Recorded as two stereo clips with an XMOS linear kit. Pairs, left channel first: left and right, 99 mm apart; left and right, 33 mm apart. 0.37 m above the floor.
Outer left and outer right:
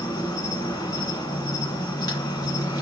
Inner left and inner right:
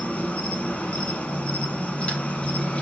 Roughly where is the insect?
Left.